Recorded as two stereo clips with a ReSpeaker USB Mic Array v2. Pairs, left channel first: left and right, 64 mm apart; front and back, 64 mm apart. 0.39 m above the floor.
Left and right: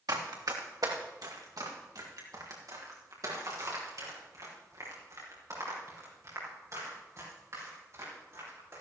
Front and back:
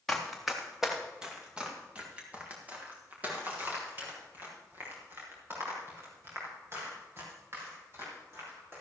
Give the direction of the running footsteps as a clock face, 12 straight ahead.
3 o'clock.